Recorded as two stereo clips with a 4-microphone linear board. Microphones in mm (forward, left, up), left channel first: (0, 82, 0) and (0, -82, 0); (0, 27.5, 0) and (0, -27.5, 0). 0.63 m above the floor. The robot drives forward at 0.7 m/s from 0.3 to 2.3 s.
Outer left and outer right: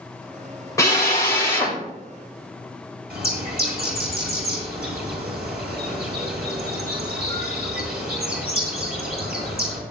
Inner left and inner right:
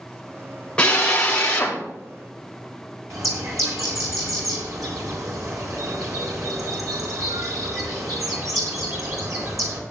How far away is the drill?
About 3 m.